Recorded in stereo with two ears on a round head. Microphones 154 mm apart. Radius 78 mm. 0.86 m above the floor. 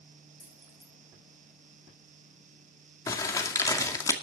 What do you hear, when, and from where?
0.4 s keys jangling: centre (ahead or behind), 6.5 m
3.1 s crumpling: 20° left (ahead or behind), 2 m